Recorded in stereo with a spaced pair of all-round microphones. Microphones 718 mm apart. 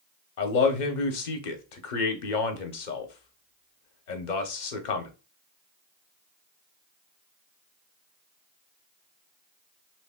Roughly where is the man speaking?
Left.